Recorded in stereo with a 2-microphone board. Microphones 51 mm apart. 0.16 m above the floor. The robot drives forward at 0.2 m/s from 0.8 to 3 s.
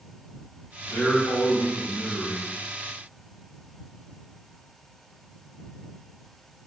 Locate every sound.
0.9 s a man speaking: 25° left (ahead or behind), 1.2 m